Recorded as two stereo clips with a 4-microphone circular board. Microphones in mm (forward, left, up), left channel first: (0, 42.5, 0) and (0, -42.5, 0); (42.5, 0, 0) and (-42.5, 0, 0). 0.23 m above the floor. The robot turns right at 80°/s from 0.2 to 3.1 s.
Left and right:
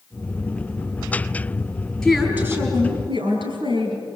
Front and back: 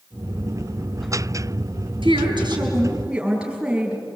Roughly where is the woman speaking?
Behind.